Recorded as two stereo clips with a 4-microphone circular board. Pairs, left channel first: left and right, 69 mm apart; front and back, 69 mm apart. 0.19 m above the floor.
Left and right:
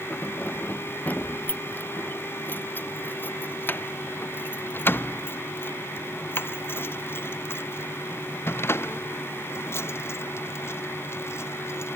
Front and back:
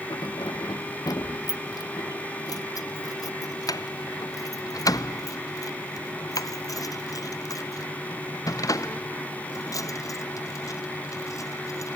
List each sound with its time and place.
0.1 s keys jangling: 25° left; by 12.0 s 40° left